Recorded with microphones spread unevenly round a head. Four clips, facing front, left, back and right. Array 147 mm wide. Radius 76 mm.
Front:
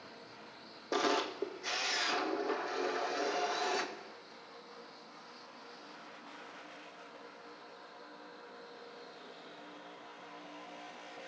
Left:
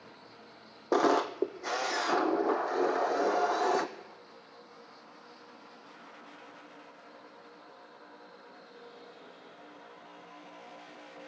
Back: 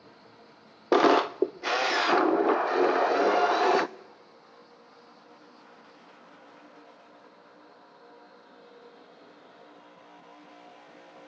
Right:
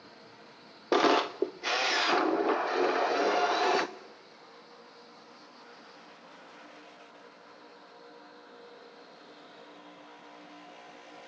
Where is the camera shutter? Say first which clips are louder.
Right 1 dB, back 12 dB; straight behind, 0.5 m.